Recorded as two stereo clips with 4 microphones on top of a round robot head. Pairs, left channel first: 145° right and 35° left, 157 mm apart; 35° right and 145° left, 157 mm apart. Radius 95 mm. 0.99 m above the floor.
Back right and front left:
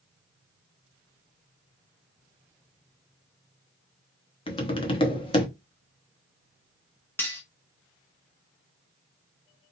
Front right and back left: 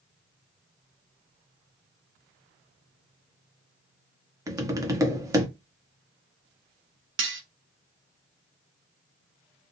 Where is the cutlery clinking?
140° left, 0.6 m.